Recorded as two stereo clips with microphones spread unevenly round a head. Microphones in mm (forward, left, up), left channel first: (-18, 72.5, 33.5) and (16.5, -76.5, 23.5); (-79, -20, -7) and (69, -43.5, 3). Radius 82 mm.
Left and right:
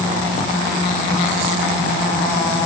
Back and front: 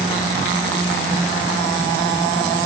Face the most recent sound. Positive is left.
No sound to turn to.